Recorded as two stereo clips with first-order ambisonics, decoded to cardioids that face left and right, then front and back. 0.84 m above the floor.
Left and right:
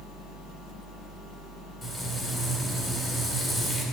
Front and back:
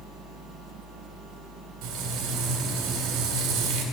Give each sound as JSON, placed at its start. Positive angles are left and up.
{"t": 1.8, "sound": "frying", "azimuth_deg": 165, "distance_m": 2.5}